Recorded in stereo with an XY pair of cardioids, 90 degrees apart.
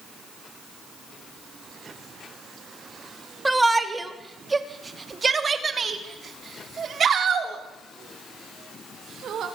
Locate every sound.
3.5 s a shout: 15° right, 3 m; by 9.5 s 70° right, 5 m